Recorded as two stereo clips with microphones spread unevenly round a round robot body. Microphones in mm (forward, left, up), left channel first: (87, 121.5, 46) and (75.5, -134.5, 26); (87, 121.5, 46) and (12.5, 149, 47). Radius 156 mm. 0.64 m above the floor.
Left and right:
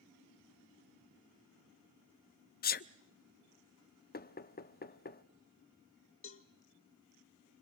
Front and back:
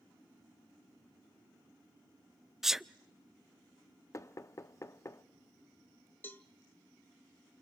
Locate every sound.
2.6 s a sneeze: 80° left, 0.6 m
4.1 s knocking: 30° left, 0.8 m
6.2 s a cowbell: 45° left, 1.4 m